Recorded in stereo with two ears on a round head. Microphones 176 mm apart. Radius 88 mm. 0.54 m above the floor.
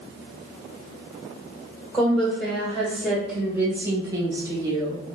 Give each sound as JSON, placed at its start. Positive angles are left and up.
{"t": 1.9, "sound": "a woman speaking", "side_deg": 5, "distance_m": 1.5}